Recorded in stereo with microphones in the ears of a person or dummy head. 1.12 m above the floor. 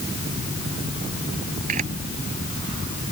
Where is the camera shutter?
45° right (ahead or behind).